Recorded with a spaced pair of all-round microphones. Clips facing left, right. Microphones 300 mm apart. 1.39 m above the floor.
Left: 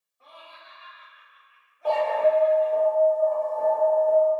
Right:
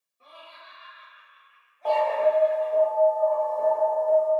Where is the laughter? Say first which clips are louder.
Even; 35° right (ahead or behind), 1.0 m; by 2.9 s 35° left (ahead or behind), 1.3 m.